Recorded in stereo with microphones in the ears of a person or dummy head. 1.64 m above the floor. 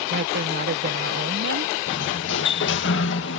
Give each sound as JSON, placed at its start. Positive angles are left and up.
{"t": 0.1, "sound": "a woman speaking", "side_deg": -55}
{"t": 1.9, "sound": "a sliding door", "side_deg": 70}